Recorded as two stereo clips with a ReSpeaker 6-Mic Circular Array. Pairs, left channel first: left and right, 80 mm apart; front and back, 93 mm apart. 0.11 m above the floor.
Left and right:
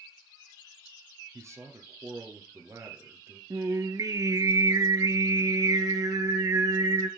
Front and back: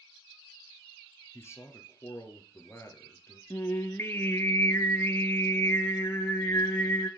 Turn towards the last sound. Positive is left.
turn(degrees=-55)